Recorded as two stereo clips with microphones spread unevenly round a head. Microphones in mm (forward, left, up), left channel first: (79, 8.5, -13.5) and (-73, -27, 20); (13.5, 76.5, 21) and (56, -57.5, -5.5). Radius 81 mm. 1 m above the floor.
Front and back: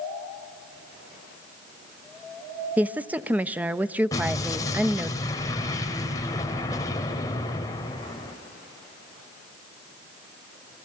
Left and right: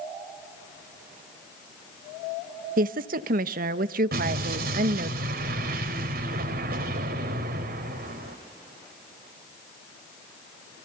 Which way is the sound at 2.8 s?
80° right.